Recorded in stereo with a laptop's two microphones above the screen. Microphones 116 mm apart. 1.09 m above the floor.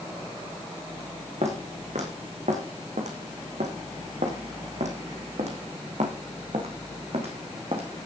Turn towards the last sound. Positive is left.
turn(degrees=-55)  # may be behind; listen again after turning